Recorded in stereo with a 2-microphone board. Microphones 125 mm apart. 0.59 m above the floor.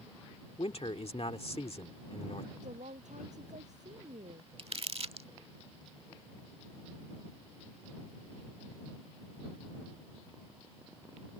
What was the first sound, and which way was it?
A man speaking, 55° left (ahead or behind).